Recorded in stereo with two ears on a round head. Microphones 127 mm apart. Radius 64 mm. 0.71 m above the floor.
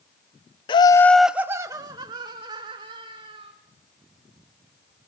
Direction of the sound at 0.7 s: 35° left (ahead or behind).